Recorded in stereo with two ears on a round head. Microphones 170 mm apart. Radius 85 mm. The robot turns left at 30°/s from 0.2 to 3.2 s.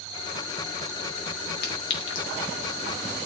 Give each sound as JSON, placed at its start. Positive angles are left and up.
{"t": 1.6, "sound": "a clink", "side_deg": 60, "distance_m": 5.0}